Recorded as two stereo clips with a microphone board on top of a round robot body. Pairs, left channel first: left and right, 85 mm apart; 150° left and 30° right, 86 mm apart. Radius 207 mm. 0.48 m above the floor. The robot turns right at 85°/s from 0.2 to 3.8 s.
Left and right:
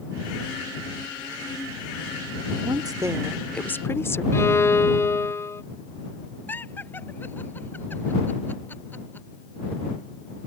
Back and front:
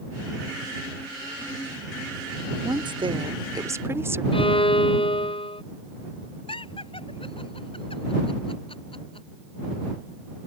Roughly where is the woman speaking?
Right.